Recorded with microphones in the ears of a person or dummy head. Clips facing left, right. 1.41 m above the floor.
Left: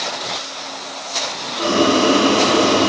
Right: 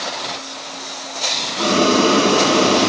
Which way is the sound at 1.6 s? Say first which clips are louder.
Even; 50° right (ahead or behind).